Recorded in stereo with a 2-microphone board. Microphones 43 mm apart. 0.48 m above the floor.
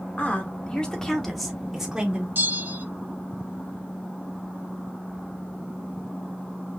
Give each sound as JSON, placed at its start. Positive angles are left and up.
{"t": 0.2, "sound": "a woman speaking", "side_deg": 35, "distance_m": 1.5}
{"t": 2.4, "sound": "a bell", "side_deg": -50, "distance_m": 0.8}